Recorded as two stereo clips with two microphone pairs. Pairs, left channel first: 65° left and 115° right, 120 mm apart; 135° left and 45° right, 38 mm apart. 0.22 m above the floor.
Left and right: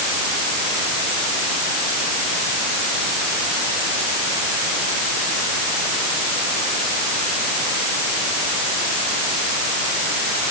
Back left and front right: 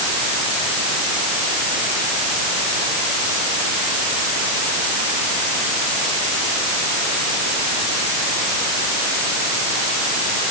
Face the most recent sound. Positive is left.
No sound to turn to.